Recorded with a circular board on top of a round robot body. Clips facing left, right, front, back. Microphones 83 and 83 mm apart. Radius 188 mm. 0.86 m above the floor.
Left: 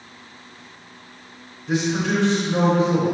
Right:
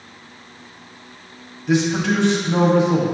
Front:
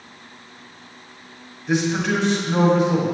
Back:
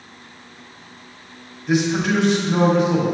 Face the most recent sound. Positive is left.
turn(degrees=-95)